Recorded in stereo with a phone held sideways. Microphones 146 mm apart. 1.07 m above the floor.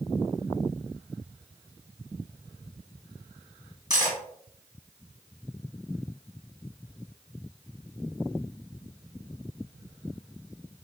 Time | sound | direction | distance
3.9 | cutlery clinking | 30° right (ahead or behind) | 1.5 m